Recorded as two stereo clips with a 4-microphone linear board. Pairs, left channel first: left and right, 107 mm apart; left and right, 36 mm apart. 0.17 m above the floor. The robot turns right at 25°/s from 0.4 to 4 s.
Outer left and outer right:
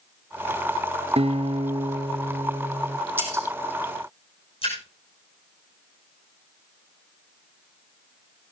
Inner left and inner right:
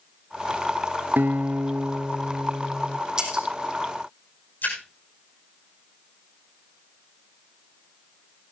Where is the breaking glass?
20° right (ahead or behind), 4 m; by 3.5 s 25° right (ahead or behind), 4 m.